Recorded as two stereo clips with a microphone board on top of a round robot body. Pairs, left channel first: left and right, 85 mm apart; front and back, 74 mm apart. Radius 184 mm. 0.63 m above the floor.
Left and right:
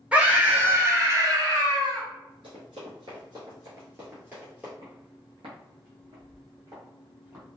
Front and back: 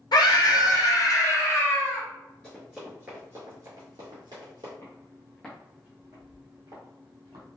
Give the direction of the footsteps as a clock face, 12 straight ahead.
2 o'clock.